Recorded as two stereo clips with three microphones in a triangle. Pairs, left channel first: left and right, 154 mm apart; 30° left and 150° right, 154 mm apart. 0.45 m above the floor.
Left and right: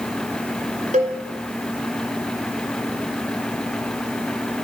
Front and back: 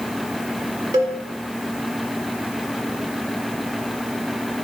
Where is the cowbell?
85° right, 2 m.